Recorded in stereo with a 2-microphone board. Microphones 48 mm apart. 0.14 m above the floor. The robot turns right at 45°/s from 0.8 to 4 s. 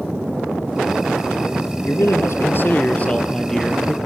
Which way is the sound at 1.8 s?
90° left.